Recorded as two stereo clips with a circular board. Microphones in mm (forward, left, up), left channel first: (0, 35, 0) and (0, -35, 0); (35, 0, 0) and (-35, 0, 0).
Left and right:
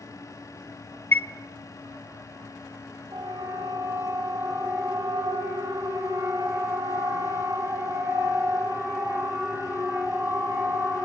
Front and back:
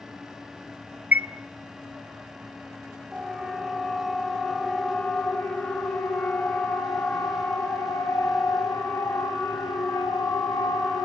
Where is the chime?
130° left, 0.6 m.